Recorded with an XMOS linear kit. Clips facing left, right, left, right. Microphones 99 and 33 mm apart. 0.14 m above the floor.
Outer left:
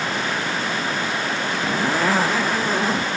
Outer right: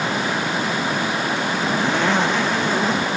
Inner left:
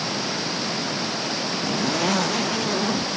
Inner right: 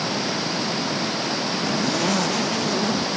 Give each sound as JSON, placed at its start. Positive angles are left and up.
{"t": 0.0, "sound": "running water", "side_deg": -15}
{"t": 1.6, "sound": "a zipper", "side_deg": 5}